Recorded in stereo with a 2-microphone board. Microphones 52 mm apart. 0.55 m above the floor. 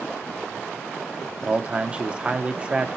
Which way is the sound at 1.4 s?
20° right (ahead or behind).